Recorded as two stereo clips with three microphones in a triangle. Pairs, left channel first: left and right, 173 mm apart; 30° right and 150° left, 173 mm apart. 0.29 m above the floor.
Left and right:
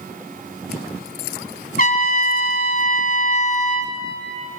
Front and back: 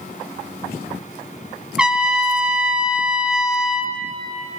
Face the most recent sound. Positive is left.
turn(degrees=65)